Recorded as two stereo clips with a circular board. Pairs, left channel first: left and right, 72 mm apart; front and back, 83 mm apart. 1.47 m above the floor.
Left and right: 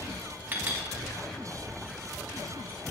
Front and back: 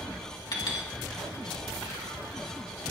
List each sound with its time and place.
0.5 s a clink: 30° right, 2.5 m